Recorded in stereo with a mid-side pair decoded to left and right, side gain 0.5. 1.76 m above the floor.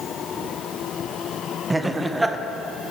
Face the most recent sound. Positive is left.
turn(degrees=-15)